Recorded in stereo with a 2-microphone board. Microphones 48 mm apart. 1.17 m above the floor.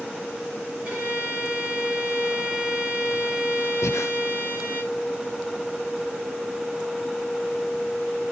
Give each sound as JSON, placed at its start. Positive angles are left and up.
{"t": 0.8, "sound": "a violin", "side_deg": -30, "distance_m": 6.0}
{"t": 3.8, "sound": "breathing", "side_deg": 70, "distance_m": 0.7}